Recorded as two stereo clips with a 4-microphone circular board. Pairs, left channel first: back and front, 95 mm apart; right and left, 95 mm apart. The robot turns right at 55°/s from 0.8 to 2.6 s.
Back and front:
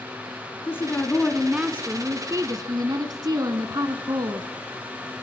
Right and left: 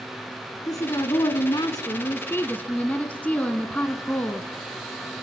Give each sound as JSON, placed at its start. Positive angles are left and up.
{"t": 0.7, "sound": "a woman speaking", "azimuth_deg": -120, "distance_m": 1.4}